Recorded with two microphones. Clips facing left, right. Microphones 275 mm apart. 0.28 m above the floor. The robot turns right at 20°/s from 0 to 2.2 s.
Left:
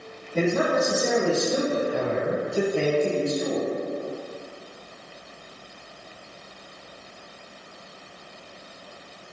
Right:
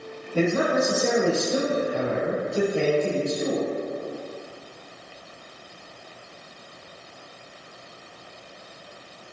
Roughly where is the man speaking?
Centre.